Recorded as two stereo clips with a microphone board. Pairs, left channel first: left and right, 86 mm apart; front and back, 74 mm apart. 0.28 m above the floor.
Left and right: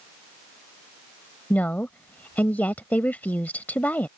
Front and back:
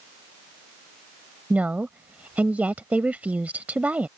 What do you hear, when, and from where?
1.5 s a woman speaking: 135° left